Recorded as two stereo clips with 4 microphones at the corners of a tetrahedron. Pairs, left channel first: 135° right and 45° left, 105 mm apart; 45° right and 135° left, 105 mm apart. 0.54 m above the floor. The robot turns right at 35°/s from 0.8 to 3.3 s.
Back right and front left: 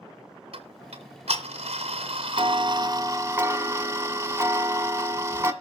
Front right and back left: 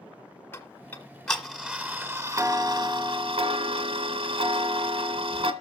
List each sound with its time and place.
0.5 s ticking: 25° left, 1.5 m; by 5.5 s 110° left, 1.5 m